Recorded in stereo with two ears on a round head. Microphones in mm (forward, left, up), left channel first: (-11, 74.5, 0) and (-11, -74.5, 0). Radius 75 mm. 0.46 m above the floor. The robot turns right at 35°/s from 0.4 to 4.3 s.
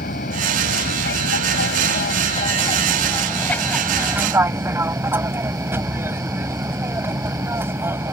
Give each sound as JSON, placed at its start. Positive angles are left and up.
{"t": 0.0, "sound": "an aircraft", "azimuth_deg": 60}